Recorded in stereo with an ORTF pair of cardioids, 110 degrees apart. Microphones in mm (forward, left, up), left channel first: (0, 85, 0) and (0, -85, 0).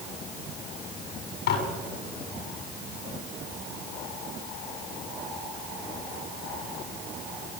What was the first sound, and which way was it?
Dishes clattering, 65° left.